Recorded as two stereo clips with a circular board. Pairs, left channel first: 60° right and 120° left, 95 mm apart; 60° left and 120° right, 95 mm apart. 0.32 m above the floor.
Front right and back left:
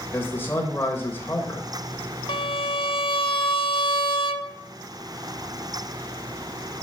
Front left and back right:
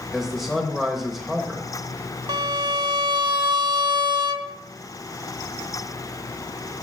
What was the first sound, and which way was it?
A man speaking, 35° right.